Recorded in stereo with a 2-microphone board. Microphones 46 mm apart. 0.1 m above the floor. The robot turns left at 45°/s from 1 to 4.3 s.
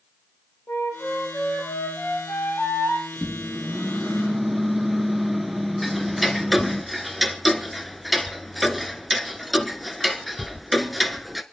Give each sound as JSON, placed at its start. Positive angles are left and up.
{"t": 0.7, "sound": "a flute", "azimuth_deg": 105, "distance_m": 6.5}
{"t": 3.1, "sound": "a microwave", "side_deg": 20, "distance_m": 1.1}
{"t": 5.8, "sound": "ticking", "side_deg": 0, "distance_m": 1.2}